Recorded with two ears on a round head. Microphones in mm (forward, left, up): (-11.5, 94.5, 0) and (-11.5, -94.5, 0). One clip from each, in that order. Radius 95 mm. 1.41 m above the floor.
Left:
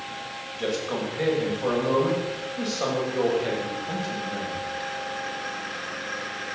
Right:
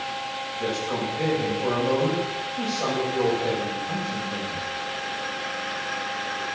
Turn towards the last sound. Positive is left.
turn(degrees=40)  # may be behind; listen again after turning